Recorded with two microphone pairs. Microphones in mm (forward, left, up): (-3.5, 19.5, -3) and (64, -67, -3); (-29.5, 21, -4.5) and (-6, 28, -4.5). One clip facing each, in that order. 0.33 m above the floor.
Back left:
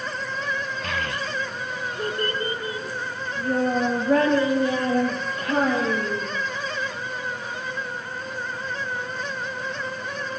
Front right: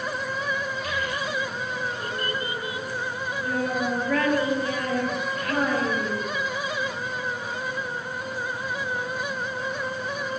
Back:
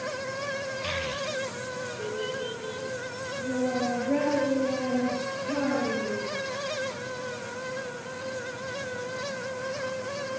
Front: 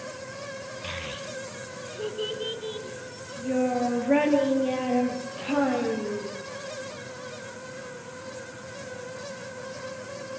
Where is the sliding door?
I don't hear a sliding door.